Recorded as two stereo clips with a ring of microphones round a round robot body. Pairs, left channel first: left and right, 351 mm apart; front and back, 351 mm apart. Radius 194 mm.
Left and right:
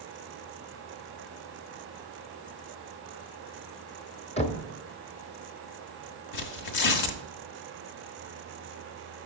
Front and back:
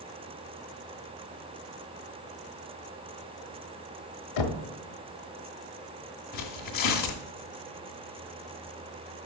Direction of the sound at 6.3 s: 65° left.